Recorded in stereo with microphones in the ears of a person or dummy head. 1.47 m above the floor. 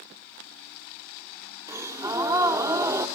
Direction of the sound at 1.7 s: 15° right (ahead or behind).